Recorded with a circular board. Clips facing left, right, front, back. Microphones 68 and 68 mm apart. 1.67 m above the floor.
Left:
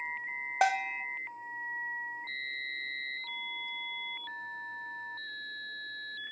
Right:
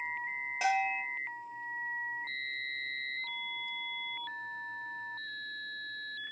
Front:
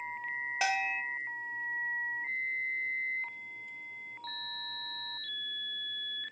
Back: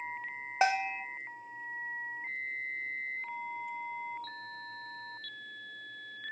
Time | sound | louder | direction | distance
0.6 | a bell | left 1 dB, back 4 dB | 120° left | 1.0 m